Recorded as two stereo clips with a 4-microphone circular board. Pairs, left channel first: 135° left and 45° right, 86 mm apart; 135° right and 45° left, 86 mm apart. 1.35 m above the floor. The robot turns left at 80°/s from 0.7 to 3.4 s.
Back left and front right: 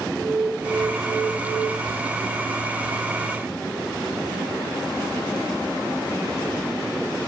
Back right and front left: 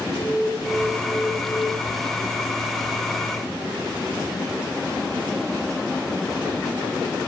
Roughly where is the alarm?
Behind right.